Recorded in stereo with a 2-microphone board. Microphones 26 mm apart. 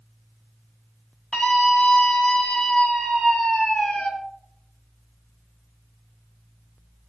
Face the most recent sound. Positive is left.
turn(degrees=50)  # may be behind; listen again after turning